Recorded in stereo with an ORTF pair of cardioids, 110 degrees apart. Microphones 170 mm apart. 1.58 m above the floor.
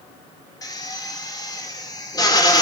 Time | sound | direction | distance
0.6 | a drill | 25° left | 3 m